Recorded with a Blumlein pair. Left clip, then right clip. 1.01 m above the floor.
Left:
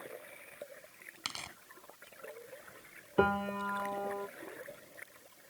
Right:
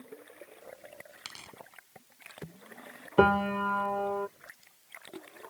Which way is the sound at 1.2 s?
10° left.